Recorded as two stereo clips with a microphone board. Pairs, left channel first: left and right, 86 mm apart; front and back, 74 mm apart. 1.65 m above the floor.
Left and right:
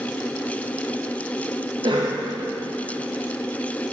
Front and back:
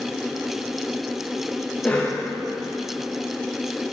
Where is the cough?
75° right, 0.8 m.